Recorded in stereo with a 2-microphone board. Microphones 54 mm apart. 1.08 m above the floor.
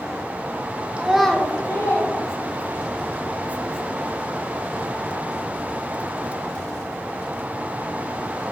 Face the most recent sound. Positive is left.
turn(degrees=85)